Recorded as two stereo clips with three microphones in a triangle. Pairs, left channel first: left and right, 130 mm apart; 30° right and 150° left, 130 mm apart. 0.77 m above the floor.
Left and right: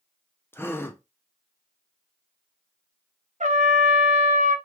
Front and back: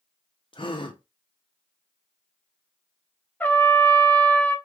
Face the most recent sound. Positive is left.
turn(degrees=-110)